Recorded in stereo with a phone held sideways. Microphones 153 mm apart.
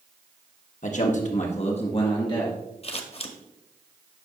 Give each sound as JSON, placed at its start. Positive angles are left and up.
{"t": 0.8, "sound": "a man speaking", "side_deg": 55, "distance_m": 1.2}
{"t": 2.8, "sound": "scissors", "side_deg": 40, "distance_m": 0.9}